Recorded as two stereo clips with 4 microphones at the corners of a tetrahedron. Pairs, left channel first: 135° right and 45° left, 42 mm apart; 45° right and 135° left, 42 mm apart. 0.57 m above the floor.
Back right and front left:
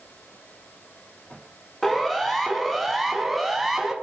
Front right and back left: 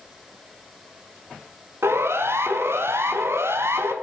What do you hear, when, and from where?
1.8 s a siren: 145° left, 5.5 m; by 3.9 s 130° left, 4.5 m